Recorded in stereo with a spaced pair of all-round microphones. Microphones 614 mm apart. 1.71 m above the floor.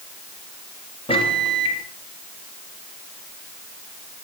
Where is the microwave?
10° left (ahead or behind), 3 m.